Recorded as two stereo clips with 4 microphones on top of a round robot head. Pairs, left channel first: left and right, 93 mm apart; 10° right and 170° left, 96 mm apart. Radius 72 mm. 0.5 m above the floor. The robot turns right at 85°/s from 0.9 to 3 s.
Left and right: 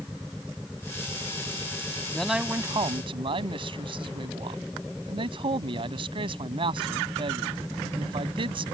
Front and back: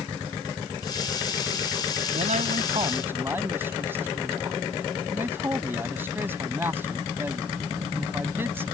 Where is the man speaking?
170° left; by 8.7 s 115° right.